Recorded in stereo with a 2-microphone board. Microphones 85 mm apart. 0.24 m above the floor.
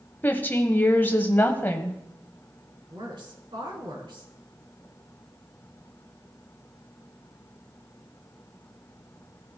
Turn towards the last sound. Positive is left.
turn(degrees=-65)  # may be behind; listen again after turning